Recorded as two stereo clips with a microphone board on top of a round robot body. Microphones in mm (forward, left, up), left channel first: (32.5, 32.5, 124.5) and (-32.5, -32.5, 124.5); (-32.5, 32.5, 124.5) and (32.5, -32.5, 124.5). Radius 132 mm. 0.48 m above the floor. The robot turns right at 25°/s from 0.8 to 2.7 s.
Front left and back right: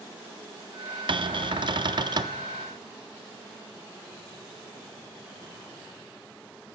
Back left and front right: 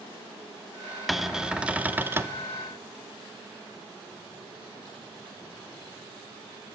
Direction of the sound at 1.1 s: 135° right.